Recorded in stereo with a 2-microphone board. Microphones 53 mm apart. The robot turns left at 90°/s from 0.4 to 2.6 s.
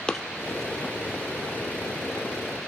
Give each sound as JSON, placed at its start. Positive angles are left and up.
{"t": 0.1, "sound": "running footsteps", "side_deg": 15, "distance_m": 1.1}